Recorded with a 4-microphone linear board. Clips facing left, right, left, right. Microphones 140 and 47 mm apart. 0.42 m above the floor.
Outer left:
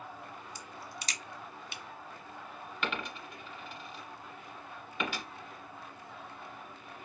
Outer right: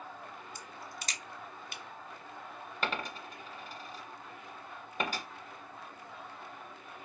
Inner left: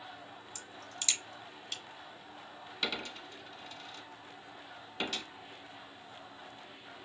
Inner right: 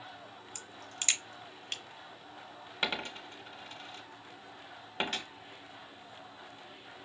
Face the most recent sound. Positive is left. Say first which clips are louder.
# outer right 1 dB, inner right 3 dB
turn(degrees=-40)  # may be behind; listen again after turning